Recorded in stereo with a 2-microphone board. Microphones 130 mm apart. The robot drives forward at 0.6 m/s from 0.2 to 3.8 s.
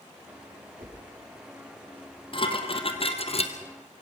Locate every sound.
0.8 s a whoosh: 60° right (ahead or behind), 8.5 m
2.3 s dishes clattering: 40° left (ahead or behind), 2.5 m; by 3.5 s 50° left (ahead or behind), 2.5 m